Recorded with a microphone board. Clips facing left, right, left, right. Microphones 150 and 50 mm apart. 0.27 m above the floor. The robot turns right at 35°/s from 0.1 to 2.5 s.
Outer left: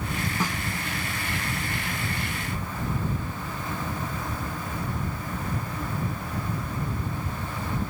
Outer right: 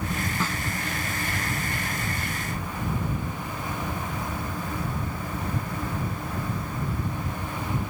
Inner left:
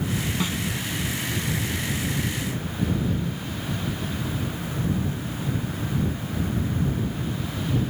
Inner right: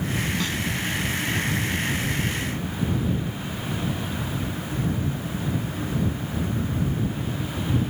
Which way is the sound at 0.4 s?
15° left (ahead or behind).